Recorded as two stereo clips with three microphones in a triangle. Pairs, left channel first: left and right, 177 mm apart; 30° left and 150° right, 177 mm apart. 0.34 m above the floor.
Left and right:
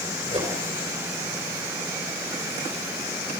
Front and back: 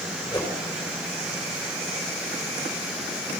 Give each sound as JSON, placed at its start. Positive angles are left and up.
{"t": 0.3, "sound": "a whoosh", "azimuth_deg": -40, "distance_m": 5.0}